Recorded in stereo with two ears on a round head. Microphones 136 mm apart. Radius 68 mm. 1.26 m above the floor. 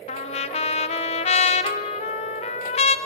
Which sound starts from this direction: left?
A trumpet, at 0.1 s.